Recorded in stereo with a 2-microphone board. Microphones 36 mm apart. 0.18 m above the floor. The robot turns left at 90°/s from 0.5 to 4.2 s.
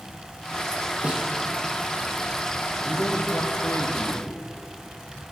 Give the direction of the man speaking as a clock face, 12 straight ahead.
7 o'clock.